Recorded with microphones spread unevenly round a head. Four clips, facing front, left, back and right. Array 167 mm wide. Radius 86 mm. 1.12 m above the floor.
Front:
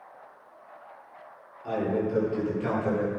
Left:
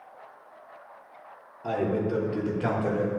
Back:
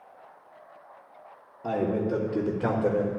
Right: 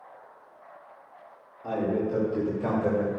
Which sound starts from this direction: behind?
A man speaking, at 1.6 s.